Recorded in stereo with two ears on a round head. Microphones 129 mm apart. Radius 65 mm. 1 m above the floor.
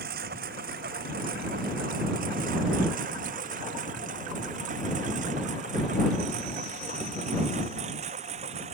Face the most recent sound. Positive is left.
turn(degrees=-50)  # may be behind; listen again after turning